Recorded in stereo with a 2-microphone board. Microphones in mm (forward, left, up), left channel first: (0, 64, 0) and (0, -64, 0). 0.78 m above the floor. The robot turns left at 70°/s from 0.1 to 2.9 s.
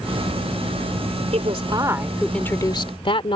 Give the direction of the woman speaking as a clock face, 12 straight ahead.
4 o'clock.